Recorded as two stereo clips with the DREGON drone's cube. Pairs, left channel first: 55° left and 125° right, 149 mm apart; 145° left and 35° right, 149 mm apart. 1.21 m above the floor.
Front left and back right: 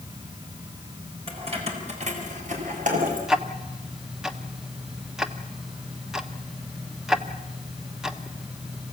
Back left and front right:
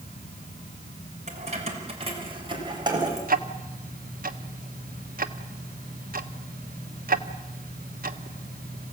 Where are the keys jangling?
75° right, 4 m; by 3.2 s 100° right, 5 m.